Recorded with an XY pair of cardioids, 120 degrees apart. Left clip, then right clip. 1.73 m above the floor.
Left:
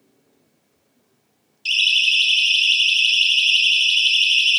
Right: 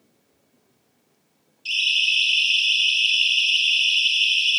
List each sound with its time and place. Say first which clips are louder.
1.6 s a siren: left 4 dB; 45° left, 4.5 m; by 4.6 s 50° left, 3 m